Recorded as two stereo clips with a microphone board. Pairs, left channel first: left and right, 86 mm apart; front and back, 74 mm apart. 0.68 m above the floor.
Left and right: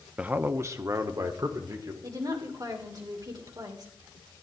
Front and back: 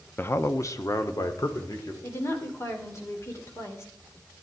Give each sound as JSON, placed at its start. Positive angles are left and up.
{"t": 0.2, "sound": "a man speaking", "azimuth_deg": -25, "distance_m": 0.5}
{"t": 2.0, "sound": "a woman speaking", "azimuth_deg": -50, "distance_m": 2.5}